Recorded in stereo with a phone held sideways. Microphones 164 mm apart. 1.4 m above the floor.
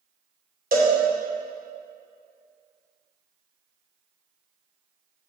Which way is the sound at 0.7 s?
60° right (ahead or behind).